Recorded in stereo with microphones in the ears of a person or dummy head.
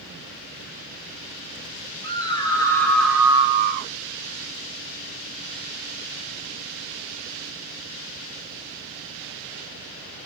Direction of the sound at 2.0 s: 25° left (ahead or behind).